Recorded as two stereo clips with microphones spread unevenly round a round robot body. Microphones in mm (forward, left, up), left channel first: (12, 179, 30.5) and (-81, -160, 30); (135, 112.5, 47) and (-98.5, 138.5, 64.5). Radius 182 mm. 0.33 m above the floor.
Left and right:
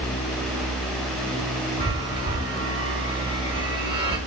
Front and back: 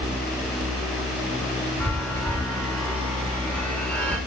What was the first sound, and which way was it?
A chime, 65° right.